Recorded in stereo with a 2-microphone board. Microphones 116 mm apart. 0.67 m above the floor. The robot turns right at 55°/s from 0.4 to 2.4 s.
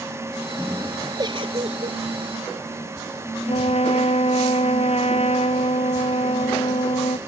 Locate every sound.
1.2 s a giggle: 140° right; by 2.0 s 95° right
3.5 s a trumpet: 65° left (ahead or behind)